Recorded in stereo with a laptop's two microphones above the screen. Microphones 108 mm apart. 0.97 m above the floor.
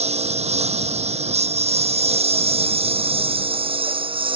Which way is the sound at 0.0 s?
80° right.